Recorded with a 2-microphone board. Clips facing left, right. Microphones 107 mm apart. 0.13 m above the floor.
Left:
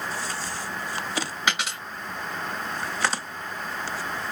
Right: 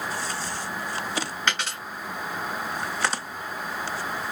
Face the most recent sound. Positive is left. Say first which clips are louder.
# left 2 dB
turn(degrees=10)  # may be behind; listen again after turning